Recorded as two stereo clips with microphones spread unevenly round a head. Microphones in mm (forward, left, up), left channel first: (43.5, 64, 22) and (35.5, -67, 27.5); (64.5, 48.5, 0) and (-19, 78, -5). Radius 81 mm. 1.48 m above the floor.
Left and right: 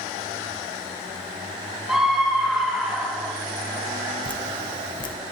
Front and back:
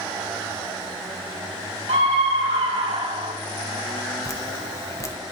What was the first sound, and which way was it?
A scream, straight behind.